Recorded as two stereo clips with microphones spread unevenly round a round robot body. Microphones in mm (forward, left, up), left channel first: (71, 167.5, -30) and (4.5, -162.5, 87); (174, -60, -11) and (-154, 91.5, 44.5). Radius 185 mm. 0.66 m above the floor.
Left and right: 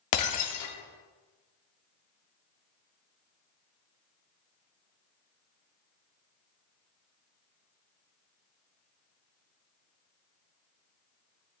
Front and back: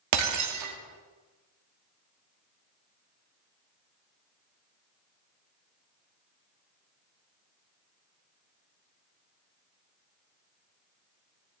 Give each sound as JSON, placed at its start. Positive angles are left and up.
{"t": 0.1, "sound": "breaking glass", "azimuth_deg": 105, "distance_m": 0.7}